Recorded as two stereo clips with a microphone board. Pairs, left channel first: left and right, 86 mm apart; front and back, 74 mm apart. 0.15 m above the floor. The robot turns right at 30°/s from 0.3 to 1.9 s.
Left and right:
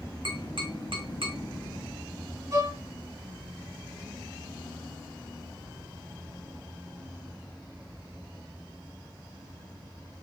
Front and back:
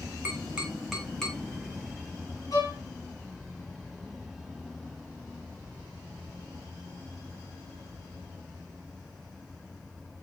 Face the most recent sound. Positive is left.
turn(degrees=-35)